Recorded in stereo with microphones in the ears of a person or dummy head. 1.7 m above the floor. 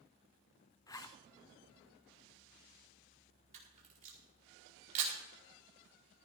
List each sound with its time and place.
0.9 s a zipper: 15° left (ahead or behind), 0.6 m
3.5 s a camera shutter: 45° right (ahead or behind), 5 m